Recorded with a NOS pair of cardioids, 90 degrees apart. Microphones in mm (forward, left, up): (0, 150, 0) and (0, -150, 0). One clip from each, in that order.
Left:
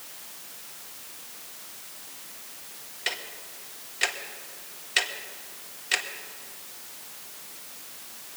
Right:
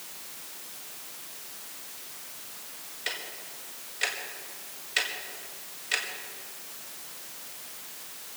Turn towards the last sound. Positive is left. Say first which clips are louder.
# left 3 dB
turn(degrees=25)